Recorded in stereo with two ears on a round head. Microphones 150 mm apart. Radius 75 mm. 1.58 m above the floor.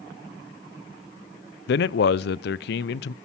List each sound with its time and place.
1.7 s a man speaking: 70° left (ahead or behind), 0.5 m